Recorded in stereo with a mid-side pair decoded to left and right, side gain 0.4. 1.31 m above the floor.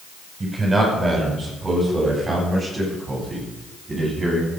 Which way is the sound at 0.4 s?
30° right.